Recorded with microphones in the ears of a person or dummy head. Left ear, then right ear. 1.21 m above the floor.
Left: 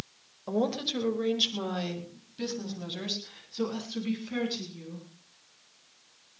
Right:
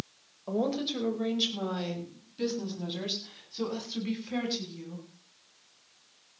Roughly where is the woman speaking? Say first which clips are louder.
Left 1 dB; centre.